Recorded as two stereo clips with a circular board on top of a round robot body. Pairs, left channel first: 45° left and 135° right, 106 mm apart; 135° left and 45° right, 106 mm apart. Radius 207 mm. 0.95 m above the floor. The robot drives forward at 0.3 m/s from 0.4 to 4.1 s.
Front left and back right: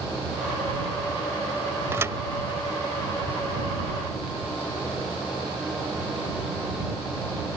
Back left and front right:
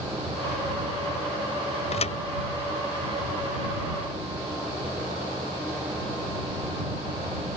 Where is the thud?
155° left; by 2.2 s 160° left.